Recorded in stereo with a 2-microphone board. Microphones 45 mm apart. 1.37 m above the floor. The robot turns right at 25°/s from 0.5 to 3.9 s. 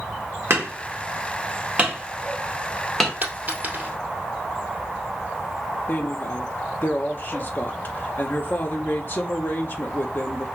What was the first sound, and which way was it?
Hammering, 60° right (ahead or behind).